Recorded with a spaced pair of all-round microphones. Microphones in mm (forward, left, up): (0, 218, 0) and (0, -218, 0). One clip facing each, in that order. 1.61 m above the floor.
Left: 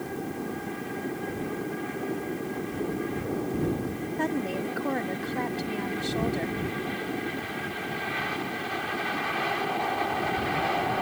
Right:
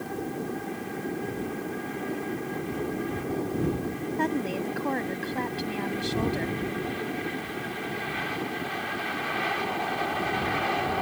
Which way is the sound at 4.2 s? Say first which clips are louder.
Even; centre (ahead or behind).